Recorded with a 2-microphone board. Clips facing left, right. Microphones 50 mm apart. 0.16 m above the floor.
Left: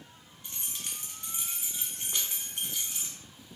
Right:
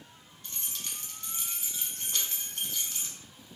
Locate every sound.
0.4 s keys jangling: 20° left (ahead or behind), 0.8 m